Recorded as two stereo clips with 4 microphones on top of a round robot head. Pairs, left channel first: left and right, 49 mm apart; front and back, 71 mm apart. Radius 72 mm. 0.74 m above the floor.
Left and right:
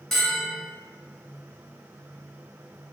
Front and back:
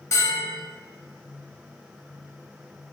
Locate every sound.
0.1 s a bell: 10° left, 1.1 m